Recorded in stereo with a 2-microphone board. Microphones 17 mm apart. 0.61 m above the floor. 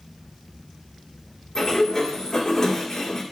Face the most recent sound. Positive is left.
turn(degrees=40)  # may be behind; listen again after turning